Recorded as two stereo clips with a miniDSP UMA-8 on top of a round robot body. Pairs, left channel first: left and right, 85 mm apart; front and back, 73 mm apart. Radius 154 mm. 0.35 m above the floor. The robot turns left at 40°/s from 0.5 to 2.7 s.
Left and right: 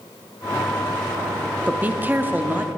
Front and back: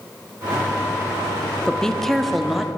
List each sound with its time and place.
1.7 s a woman speaking: 60° right, 0.8 m; by 2.7 s 105° right, 0.8 m